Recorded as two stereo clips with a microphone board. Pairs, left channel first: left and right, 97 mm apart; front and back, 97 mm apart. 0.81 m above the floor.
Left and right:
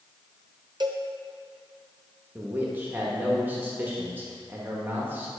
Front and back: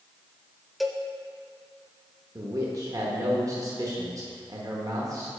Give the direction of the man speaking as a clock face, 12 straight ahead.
5 o'clock.